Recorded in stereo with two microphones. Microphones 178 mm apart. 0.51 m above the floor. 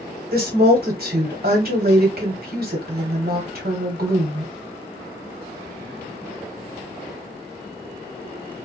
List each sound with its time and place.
0.3 s a woman speaking: 60° right (ahead or behind), 1.4 m